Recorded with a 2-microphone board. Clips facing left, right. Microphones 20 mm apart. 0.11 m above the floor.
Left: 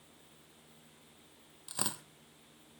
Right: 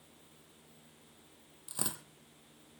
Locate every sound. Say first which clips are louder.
1.7 s tearing paper: left 2 dB; 30° left (ahead or behind), 1.2 m